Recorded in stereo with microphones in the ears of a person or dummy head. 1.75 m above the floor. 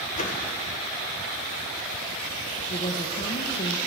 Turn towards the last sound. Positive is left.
turn(degrees=35)  # may be behind; listen again after turning